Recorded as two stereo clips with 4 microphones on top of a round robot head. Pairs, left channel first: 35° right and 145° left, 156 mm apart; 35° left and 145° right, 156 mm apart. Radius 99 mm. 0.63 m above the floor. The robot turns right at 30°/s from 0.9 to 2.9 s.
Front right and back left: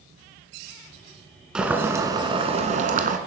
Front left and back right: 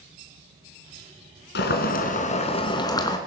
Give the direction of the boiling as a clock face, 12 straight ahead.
10 o'clock.